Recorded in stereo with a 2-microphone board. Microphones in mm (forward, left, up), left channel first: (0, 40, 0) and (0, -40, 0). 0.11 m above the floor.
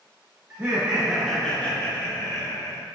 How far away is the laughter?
About 1.5 m.